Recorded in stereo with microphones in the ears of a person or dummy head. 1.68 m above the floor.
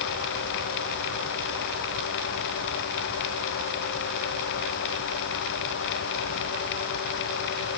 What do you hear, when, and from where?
Only background noise.